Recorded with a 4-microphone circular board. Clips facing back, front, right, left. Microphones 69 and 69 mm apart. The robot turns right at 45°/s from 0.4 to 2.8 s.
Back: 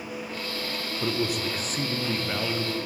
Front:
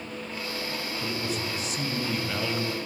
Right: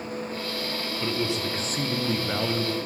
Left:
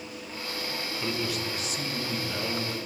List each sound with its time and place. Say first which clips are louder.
1.0 s a man speaking: back 6 dB, right 4 dB; 170° right, 1.0 m; by 2.8 s 90° right, 1.0 m